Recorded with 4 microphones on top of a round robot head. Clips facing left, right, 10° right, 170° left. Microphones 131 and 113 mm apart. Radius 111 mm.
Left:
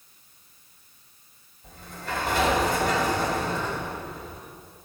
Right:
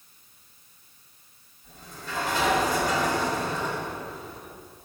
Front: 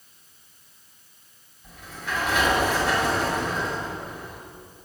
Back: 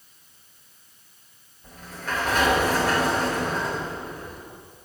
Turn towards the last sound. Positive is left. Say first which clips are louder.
# left 5 dB, back 2 dB
turn(degrees=120)